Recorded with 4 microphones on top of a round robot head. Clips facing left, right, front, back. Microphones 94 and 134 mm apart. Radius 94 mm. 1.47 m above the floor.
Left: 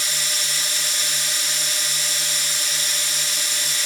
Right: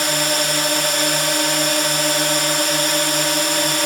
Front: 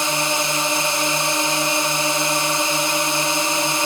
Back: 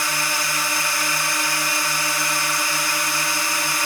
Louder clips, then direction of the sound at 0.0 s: Right 12 dB, front 5 dB; 70° right.